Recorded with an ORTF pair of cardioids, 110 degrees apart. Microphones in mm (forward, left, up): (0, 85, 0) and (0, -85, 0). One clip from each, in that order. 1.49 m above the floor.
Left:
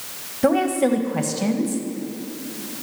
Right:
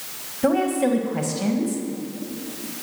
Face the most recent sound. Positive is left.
turn(degrees=10)